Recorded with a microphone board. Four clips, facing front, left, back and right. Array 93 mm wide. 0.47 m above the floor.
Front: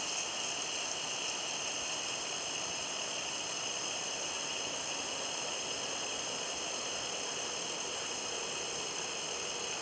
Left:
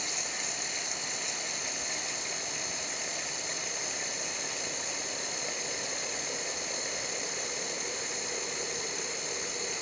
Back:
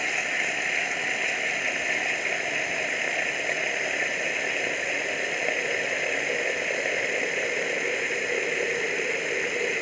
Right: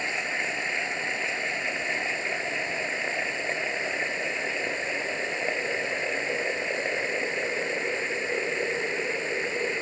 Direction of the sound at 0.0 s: 145° right.